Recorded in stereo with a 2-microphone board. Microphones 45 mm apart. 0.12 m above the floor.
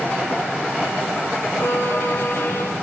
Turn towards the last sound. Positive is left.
turn(degrees=65)  # may be behind; listen again after turning